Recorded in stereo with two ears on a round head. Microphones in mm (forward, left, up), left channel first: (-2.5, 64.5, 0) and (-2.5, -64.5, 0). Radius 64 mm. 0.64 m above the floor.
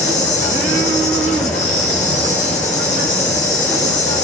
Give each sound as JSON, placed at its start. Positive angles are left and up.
{"t": 0.0, "sound": "an insect", "side_deg": 50, "distance_m": 8.5}